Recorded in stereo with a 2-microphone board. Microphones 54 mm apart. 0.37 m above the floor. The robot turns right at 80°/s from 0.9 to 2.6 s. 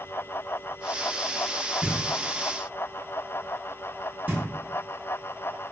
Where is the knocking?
10° right (ahead or behind), 0.7 m; by 4.4 s 35° right (ahead or behind), 0.7 m.